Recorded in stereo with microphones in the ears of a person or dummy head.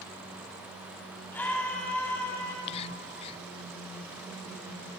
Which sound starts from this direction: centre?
A scream, at 1.3 s.